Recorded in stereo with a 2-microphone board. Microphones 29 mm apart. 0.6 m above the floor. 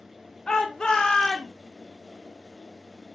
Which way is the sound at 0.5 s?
30° left (ahead or behind).